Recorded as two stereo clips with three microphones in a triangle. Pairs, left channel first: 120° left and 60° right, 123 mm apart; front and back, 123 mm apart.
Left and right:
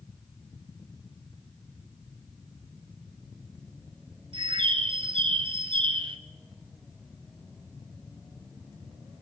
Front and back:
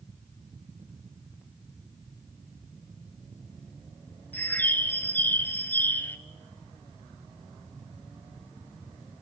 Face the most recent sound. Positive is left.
turn(degrees=-70)